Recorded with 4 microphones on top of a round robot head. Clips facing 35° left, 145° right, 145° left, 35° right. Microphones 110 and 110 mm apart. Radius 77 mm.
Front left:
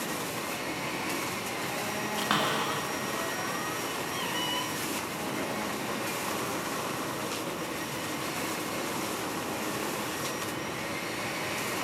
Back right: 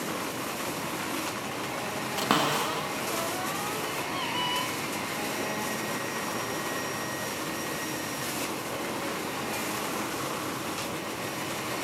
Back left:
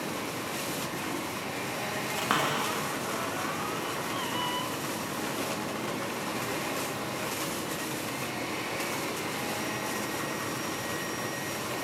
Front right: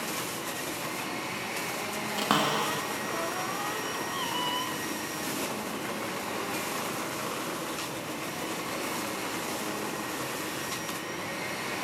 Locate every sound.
2.2 s a cupboard door: 95° right, 1.8 m